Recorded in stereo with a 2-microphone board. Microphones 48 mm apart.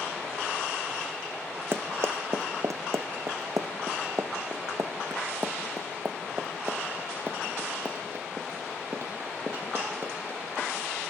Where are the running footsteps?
50° right (ahead or behind), 1.3 m; by 10.7 s 45° right (ahead or behind), 4.5 m.